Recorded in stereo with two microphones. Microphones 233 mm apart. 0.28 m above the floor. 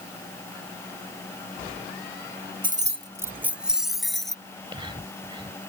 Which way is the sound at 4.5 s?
20° right (ahead or behind).